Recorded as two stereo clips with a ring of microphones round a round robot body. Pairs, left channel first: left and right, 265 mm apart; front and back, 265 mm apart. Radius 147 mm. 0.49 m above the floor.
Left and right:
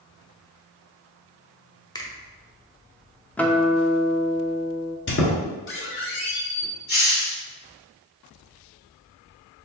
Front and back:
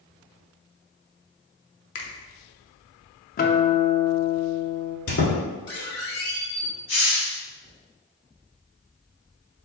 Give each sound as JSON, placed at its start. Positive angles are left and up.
{"t": 1.9, "sound": "a finger snap", "azimuth_deg": 15, "distance_m": 0.7}
{"t": 3.4, "sound": "a guitar", "azimuth_deg": 10, "distance_m": 0.5}
{"t": 5.1, "sound": "a squeak", "azimuth_deg": 45, "distance_m": 1.0}
{"t": 6.9, "sound": "a hiss", "azimuth_deg": 40, "distance_m": 1.9}